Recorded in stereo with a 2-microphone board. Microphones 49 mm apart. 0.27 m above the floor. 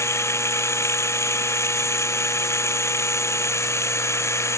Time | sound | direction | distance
0.0 | running water | 75° left (ahead or behind) | ?